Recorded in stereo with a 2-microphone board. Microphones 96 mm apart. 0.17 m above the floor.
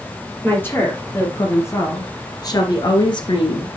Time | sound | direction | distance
0.4 | a woman speaking | 20° left (ahead or behind) | 3.5 m